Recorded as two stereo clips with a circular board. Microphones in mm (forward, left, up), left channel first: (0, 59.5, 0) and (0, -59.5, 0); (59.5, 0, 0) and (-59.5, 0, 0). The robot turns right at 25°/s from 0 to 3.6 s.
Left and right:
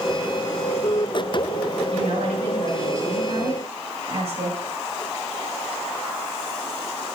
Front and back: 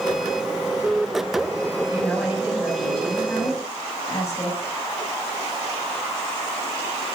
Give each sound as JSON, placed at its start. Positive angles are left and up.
{"t": 1.9, "sound": "a woman speaking", "azimuth_deg": -105, "distance_m": 7.0}